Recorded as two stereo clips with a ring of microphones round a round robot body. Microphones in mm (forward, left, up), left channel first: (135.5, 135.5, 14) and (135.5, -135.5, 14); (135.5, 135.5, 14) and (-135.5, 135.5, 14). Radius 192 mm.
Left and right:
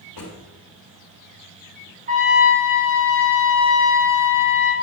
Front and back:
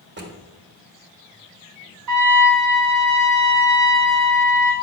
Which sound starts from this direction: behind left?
A drawer, at 0.2 s.